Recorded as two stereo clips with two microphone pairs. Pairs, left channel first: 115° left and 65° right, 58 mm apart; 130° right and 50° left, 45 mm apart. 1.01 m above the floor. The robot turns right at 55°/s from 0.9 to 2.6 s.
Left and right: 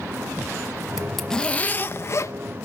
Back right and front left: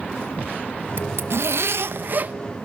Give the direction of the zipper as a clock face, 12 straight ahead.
11 o'clock.